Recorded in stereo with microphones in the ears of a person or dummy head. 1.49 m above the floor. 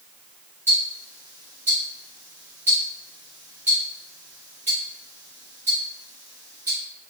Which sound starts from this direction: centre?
Ticking, at 0.7 s.